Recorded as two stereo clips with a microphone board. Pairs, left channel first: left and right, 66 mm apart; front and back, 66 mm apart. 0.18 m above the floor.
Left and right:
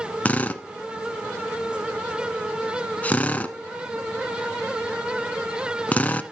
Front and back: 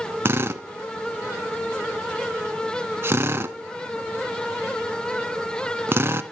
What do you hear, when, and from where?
0.2 s a drill: 145° left, 0.6 m